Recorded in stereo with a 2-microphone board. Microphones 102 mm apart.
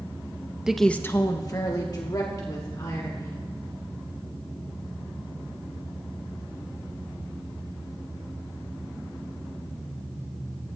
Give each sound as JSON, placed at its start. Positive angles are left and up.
{"t": 0.7, "sound": "a woman speaking", "side_deg": -5, "distance_m": 0.7}